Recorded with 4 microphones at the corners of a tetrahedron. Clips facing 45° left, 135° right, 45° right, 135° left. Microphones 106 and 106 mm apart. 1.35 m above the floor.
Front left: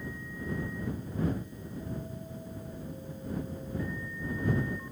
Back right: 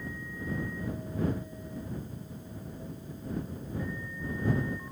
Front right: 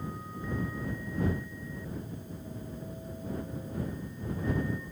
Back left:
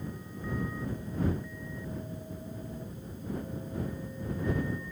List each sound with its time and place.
Only background noise.